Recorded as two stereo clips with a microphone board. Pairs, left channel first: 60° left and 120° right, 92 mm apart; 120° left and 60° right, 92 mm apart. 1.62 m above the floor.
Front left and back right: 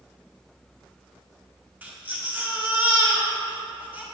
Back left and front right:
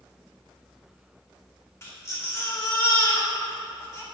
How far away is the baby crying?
About 1.6 m.